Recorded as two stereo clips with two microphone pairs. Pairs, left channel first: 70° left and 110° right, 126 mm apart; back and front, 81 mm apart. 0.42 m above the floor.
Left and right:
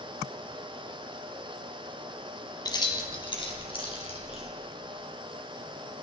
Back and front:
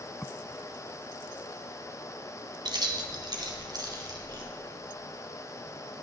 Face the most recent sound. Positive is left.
turn(degrees=35)